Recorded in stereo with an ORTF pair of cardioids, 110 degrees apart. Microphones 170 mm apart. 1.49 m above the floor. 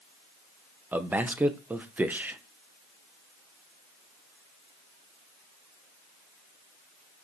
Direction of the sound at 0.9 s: 10° right.